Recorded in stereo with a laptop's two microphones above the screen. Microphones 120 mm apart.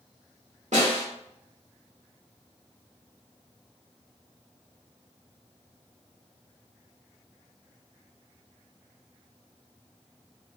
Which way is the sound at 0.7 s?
80° right.